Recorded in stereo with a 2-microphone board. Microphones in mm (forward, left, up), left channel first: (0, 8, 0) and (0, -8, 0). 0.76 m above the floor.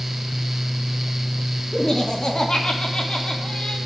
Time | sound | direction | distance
1.7 | laughter | 35° left (ahead or behind) | 1.8 m